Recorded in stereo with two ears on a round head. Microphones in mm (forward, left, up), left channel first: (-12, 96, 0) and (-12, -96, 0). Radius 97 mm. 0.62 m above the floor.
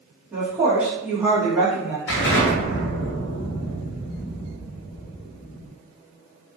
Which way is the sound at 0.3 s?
10° right (ahead or behind).